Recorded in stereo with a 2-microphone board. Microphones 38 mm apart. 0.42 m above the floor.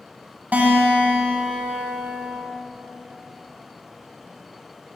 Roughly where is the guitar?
Right.